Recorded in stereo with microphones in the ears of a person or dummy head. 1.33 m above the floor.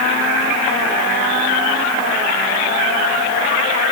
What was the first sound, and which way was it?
Only background noise.